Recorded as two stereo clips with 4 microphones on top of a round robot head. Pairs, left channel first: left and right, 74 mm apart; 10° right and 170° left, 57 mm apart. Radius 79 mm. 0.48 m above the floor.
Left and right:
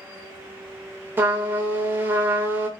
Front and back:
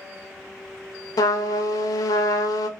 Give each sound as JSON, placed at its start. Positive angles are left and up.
{"t": 1.2, "sound": "a trumpet", "azimuth_deg": -25, "distance_m": 0.5}